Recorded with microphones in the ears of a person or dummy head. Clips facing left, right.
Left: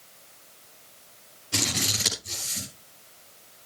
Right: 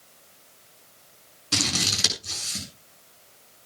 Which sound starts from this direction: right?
Scissors, at 1.5 s.